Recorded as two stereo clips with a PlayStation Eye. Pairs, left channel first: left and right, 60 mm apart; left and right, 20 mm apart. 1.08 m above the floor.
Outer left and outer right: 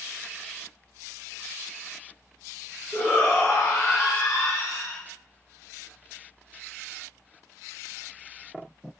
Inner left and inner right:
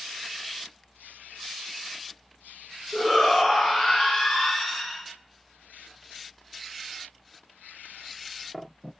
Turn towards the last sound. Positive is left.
turn(degrees=35)  # may be behind; listen again after turning